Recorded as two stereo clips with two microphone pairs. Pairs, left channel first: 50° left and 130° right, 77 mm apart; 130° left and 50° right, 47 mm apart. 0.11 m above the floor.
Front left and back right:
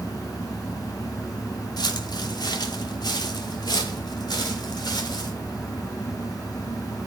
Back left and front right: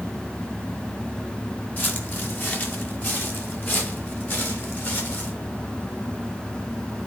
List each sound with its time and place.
1.8 s footsteps: 80° left, 2.5 m; by 5.3 s 85° left, 5 m